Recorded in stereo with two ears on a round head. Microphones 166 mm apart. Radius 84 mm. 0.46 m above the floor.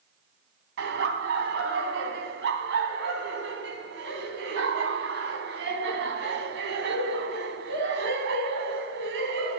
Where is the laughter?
70° right (ahead or behind), 3 m.